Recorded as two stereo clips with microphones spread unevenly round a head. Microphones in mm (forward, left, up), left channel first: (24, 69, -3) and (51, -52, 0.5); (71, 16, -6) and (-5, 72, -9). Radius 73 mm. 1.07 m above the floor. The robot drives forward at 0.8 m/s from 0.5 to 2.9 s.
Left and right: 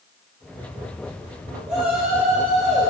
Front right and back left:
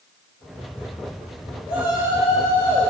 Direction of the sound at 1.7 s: 160° right.